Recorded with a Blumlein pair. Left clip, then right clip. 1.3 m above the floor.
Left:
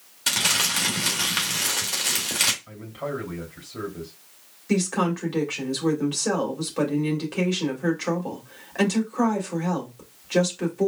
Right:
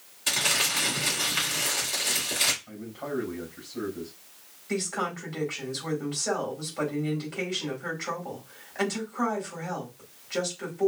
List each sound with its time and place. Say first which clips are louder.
0.3 s crumpling: left 3 dB; 50° left, 2 m
2.7 s a man speaking: left 4 dB; 35° left, 3 m
4.7 s a woman speaking: left 5 dB; 40° left, 2.5 m